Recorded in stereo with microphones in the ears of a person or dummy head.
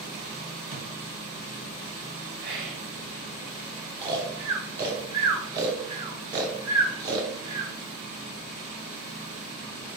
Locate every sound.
0.7 s a thud: 25° right (ahead or behind), 2.5 m
2.4 s whispering: 60° right (ahead or behind), 2.5 m
4.0 s snoring: 20° right (ahead or behind), 1.0 m